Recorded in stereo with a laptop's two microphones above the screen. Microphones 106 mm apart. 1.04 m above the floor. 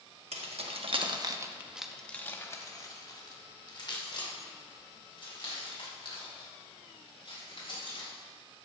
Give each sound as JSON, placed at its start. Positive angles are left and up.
{"t": 0.3, "sound": "keys jangling", "side_deg": -75, "distance_m": 1.5}